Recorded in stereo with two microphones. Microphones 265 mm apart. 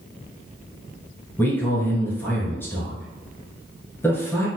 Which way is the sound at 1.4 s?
10° left (ahead or behind).